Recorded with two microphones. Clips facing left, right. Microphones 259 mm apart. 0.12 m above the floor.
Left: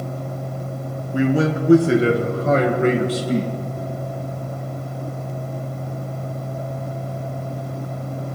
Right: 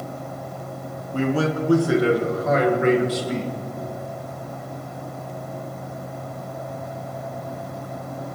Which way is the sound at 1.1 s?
10° left (ahead or behind).